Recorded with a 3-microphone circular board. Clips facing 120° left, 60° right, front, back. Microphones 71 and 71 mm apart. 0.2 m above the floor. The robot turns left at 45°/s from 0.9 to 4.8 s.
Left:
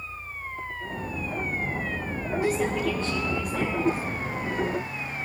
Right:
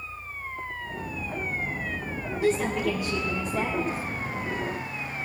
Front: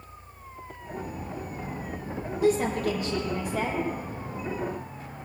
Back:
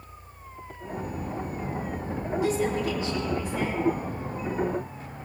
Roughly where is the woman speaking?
Ahead left.